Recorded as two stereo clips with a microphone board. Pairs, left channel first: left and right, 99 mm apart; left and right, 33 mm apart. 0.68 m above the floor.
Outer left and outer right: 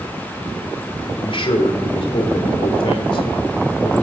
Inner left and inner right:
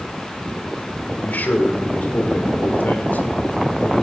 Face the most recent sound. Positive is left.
turn(degrees=65)  # may be behind; listen again after turning